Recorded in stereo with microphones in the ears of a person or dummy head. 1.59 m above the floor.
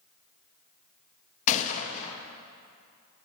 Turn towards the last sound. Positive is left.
turn(degrees=40)  # may be behind; listen again after turning